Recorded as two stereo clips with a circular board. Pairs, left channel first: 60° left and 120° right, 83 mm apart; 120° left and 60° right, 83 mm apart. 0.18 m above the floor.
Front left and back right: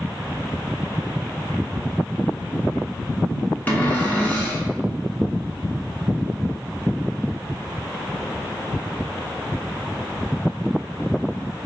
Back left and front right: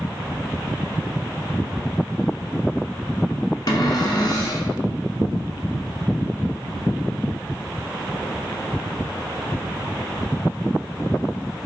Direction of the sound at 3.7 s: 125° left.